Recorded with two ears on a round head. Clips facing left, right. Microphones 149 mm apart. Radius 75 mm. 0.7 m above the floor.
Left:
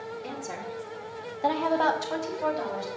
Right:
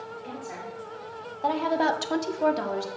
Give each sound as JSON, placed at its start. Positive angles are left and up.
{"t": 0.2, "sound": "a woman speaking", "side_deg": 50, "distance_m": 2.5}